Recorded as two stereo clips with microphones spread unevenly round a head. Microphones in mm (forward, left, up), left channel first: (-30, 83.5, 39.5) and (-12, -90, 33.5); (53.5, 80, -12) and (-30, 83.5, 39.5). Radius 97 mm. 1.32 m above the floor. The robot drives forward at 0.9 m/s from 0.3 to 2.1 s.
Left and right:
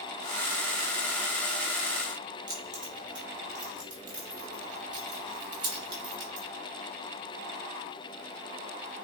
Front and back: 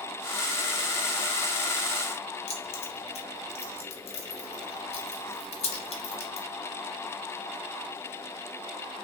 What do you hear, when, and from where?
2.5 s keys jangling: 25° right, 0.5 m